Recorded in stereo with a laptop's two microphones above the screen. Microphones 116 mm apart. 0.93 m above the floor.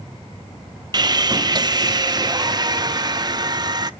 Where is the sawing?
35° right (ahead or behind), 0.5 m.